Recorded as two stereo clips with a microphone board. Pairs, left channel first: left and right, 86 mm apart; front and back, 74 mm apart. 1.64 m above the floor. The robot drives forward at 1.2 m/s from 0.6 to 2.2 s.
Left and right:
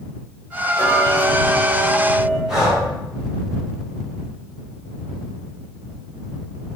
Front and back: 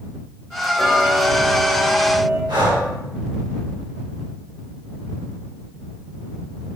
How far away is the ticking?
About 1.5 m.